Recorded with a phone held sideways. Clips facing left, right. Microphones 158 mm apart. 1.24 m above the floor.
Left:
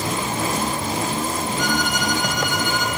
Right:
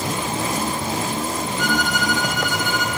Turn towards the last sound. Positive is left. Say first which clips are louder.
# right 2 dB
turn(degrees=-50)  # may be behind; listen again after turning